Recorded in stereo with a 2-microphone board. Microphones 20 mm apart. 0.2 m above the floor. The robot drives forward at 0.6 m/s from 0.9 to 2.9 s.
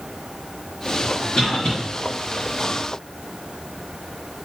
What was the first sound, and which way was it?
A cough, 45° left (ahead or behind).